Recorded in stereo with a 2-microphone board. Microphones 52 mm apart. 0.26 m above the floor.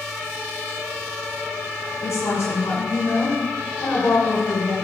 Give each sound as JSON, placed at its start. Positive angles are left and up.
{"t": 2.0, "sound": "a woman speaking", "side_deg": 60, "distance_m": 2.0}